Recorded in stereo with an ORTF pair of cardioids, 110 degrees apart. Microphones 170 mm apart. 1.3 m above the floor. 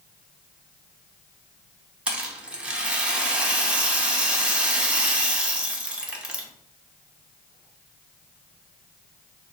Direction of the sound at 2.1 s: 5° right.